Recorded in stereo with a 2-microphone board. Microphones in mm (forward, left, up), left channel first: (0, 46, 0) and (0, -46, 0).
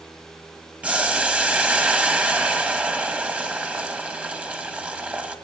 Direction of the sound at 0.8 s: 15° right (ahead or behind).